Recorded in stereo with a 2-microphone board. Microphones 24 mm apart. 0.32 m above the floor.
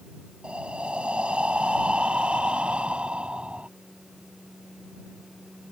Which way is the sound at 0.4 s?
50° right (ahead or behind).